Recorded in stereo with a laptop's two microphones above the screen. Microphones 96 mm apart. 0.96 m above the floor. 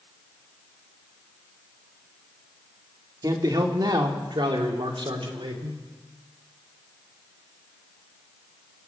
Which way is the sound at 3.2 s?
45° right (ahead or behind).